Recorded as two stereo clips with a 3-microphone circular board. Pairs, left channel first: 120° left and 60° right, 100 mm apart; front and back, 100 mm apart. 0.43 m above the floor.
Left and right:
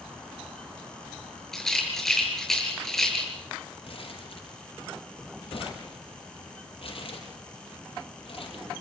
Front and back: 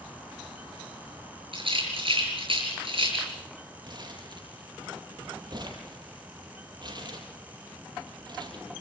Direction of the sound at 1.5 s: 155° right.